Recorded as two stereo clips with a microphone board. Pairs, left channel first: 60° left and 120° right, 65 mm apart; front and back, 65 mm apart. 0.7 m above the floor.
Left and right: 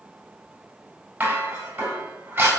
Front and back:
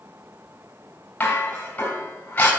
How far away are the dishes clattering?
About 3.5 m.